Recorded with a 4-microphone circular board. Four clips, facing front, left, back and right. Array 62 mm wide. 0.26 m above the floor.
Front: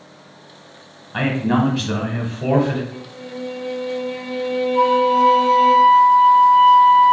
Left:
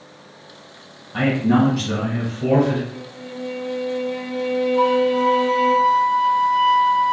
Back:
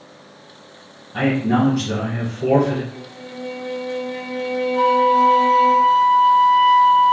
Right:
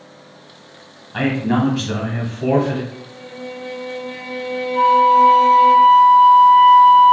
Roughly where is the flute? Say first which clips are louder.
Right 8 dB, even; ahead right.